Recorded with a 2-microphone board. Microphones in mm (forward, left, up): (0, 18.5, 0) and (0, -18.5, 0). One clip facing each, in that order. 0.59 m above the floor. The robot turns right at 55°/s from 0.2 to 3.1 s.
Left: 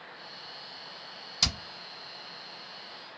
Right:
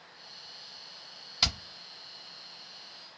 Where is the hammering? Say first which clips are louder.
Right 1 dB; 20° right (ahead or behind), 1.1 m; by 1.6 s 15° right (ahead or behind), 1.1 m.